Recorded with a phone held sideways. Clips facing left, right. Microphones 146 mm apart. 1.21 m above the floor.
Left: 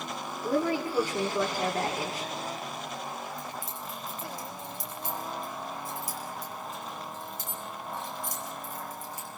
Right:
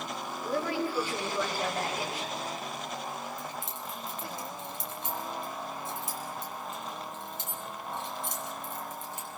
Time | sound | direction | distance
0.4 | a woman speaking | 45° left (ahead or behind) | 3 m
3.4 | keys jangling | 25° right (ahead or behind) | 6 m